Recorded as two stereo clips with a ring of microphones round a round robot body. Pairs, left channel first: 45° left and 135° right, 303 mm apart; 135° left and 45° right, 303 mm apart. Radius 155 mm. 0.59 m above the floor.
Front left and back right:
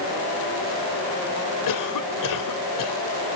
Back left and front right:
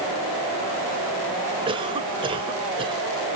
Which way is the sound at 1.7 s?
30° left.